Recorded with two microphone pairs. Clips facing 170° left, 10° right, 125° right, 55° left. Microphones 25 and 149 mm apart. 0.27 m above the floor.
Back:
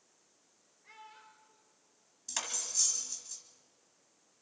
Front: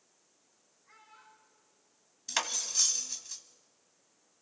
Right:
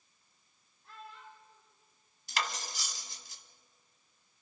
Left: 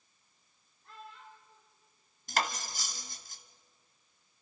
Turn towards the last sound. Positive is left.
turn(degrees=35)